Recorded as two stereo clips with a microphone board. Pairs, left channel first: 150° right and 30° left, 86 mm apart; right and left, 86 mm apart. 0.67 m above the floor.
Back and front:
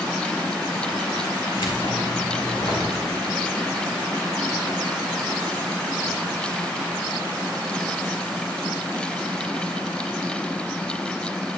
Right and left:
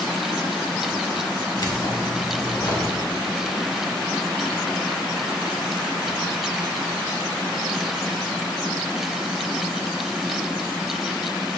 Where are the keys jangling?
130° right, 1.7 m.